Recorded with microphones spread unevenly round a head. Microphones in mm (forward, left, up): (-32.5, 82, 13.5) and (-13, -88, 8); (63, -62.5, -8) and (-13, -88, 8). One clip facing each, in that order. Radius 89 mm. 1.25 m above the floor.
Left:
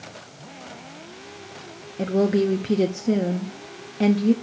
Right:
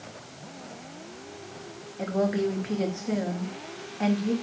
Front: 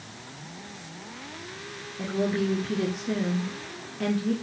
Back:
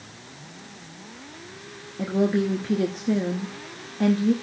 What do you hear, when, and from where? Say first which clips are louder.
2.0 s a woman speaking: left 6 dB, back 4 dB; 130° left, 0.7 m